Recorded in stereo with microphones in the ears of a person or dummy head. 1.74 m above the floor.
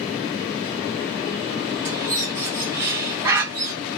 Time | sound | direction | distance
1.9 | a bird | 15° right (ahead or behind) | 0.7 m